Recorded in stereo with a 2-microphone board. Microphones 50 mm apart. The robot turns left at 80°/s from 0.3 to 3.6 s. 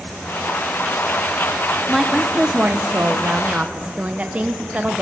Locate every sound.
1.9 s a woman speaking: 5° left, 0.7 m; by 5.0 s 135° right, 0.7 m